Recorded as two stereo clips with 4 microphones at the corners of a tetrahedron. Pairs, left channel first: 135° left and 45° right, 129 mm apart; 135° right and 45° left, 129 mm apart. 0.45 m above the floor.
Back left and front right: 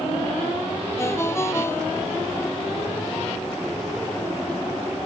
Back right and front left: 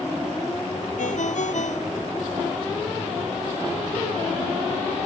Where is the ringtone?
155° right.